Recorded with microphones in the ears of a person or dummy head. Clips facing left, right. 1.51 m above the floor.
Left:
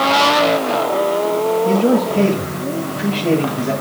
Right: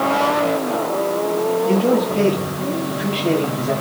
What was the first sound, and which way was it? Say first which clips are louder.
A man speaking: left 2 dB; 30° left (ahead or behind).